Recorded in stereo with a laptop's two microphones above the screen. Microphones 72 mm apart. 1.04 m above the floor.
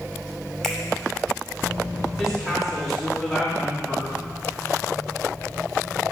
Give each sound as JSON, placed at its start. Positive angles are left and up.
{"t": 0.6, "sound": "a finger snap", "side_deg": 10, "distance_m": 2.5}
{"t": 2.2, "sound": "a woman speaking", "side_deg": 0, "distance_m": 3.0}